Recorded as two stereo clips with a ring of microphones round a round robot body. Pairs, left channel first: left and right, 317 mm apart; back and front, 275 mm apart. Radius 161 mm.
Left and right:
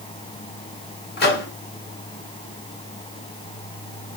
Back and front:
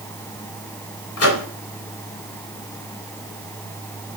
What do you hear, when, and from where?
1.2 s a microwave: 150° left, 2.5 m